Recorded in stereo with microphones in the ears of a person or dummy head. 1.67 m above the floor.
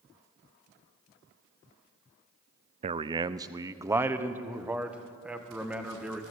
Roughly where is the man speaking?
Right.